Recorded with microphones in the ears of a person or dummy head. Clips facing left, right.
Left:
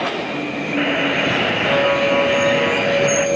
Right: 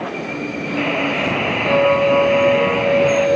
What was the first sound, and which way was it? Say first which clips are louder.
A buzzer: left 1 dB; 10° left (ahead or behind).